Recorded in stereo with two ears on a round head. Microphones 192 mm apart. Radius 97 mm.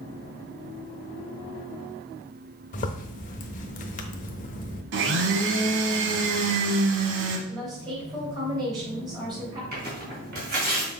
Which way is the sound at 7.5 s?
20° right (ahead or behind).